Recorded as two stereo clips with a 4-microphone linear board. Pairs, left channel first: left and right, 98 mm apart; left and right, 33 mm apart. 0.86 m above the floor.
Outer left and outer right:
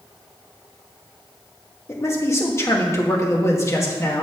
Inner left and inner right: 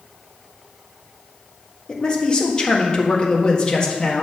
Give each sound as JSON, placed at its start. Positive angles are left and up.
{"t": 1.9, "sound": "a man speaking", "side_deg": 30, "distance_m": 1.4}